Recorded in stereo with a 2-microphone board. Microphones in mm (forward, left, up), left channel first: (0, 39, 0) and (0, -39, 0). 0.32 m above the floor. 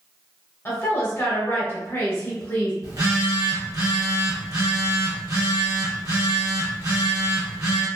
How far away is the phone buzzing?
About 1.4 m.